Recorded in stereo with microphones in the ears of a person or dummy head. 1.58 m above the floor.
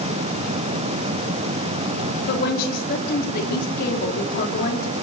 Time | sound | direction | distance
2.3 | a woman speaking | 60° left (ahead or behind) | 4.5 m